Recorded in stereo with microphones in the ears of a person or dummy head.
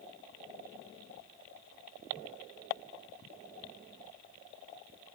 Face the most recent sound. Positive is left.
No sound to turn to.